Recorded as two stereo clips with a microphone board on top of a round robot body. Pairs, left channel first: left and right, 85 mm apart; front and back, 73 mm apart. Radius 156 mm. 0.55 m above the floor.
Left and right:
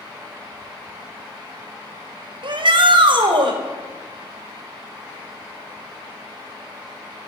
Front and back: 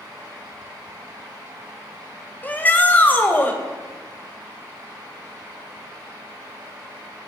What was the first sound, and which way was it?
A shout, 65° right.